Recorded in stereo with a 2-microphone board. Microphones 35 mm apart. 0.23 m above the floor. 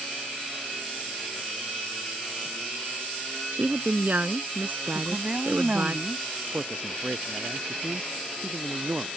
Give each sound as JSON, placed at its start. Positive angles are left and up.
{"t": 3.5, "sound": "a woman speaking", "side_deg": -60}
{"t": 5.0, "sound": "a woman speaking", "side_deg": -45}
{"t": 6.5, "sound": "a man speaking", "side_deg": -60}